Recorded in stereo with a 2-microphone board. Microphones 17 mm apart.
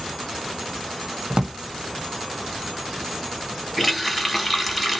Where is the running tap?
5° right (ahead or behind), 1.3 m.